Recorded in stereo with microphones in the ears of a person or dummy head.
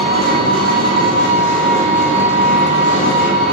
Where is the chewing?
I don't hear chewing.